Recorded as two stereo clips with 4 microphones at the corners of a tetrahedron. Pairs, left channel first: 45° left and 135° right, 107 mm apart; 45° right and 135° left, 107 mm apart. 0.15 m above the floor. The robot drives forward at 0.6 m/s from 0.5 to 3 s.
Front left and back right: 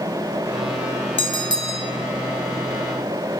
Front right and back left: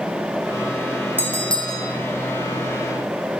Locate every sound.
1.2 s a bell: 65° left, 0.6 m; by 1.9 s 115° left, 0.6 m